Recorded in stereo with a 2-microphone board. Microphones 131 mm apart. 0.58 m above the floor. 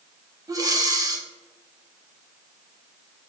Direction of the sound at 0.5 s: 30° right (ahead or behind).